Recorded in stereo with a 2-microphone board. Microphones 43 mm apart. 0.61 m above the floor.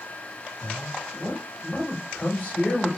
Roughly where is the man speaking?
Left.